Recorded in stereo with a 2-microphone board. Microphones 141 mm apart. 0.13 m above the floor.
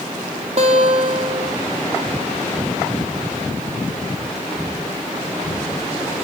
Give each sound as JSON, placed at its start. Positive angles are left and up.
{"t": 0.6, "sound": "a guitar", "side_deg": -50, "distance_m": 4.0}